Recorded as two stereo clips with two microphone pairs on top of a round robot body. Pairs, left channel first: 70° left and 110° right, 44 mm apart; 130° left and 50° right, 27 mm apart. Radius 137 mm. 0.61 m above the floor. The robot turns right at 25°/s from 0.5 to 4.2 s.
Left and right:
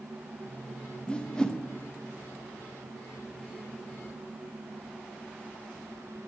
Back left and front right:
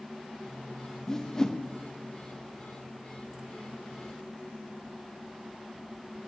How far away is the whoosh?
About 1.0 m.